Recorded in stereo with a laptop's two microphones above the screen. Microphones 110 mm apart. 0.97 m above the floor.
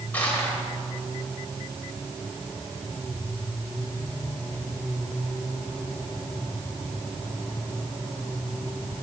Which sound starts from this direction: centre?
Crushing, at 0.1 s.